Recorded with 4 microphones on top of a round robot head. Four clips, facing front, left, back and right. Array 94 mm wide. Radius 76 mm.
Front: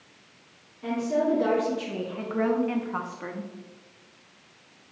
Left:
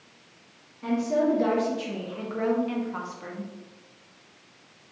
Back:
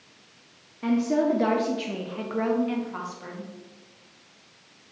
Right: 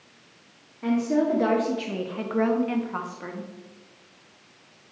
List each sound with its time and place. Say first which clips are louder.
0.8 s a woman speaking: right 1 dB, back 3 dB; 150° right, 1.2 m; by 3.5 s 25° right, 1.0 m